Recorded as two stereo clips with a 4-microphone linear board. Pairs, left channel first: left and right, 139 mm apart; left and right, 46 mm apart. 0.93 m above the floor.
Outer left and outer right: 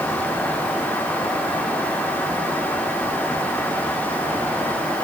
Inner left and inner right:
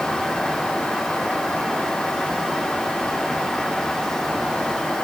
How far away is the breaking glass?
I don't hear breaking glass.